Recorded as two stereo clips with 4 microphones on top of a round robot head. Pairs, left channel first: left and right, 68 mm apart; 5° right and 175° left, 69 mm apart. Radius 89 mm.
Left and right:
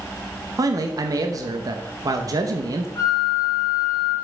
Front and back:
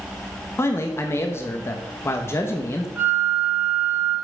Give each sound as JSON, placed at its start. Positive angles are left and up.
{"t": 0.6, "sound": "a man speaking", "azimuth_deg": -60, "distance_m": 1.0}
{"t": 3.0, "sound": "a flute", "azimuth_deg": 120, "distance_m": 1.1}